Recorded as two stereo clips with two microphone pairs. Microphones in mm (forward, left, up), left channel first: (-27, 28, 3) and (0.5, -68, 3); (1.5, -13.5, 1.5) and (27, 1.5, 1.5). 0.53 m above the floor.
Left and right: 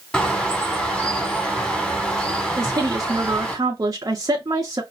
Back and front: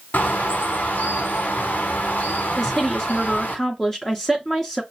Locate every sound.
0.1 s a bird: 175° right, 1.2 m
2.6 s a woman speaking: 85° right, 0.8 m